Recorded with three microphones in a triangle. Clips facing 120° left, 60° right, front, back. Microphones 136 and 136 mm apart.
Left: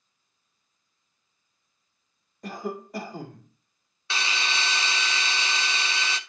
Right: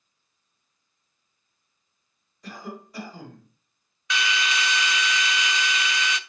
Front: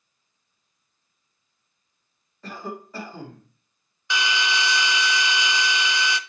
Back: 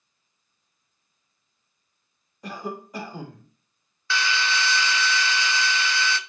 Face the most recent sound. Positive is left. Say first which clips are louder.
# right 4 dB, front 1 dB
turn(degrees=70)